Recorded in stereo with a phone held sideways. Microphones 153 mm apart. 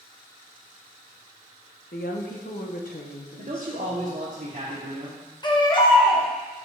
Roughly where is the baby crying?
Left.